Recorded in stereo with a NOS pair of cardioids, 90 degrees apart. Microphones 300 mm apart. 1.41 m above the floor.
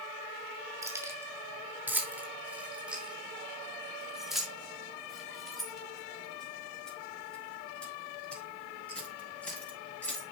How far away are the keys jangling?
About 2.5 m.